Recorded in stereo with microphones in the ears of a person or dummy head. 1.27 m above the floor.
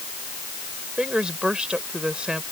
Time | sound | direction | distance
1.0 | a woman speaking | 5° right (ahead or behind) | ?